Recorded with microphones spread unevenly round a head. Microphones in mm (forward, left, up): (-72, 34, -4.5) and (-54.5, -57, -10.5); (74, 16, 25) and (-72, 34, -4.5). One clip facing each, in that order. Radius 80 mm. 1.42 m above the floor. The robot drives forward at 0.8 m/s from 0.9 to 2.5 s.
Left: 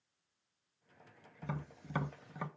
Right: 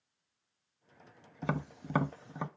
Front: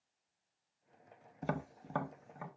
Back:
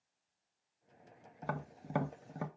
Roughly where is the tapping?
Right.